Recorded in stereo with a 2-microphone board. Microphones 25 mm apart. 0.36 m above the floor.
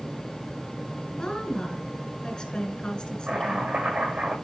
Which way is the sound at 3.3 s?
50° right (ahead or behind).